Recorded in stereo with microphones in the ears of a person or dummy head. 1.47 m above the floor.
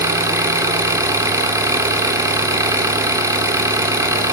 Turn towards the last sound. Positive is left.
turn(degrees=-20)  # may be behind; listen again after turning